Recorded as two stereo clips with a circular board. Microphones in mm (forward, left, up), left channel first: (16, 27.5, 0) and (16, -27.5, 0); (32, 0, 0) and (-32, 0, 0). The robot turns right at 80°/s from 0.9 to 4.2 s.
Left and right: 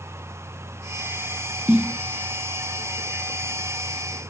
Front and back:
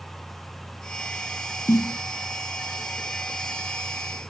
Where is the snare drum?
30° right; by 2.0 s 5° right.